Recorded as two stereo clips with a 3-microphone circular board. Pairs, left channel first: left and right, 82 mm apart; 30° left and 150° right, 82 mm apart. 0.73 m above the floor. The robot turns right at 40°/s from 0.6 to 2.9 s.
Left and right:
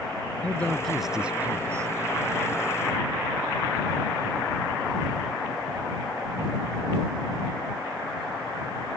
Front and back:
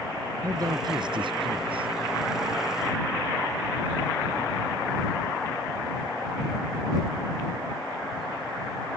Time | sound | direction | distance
0.4 | a man speaking | 165° left | ?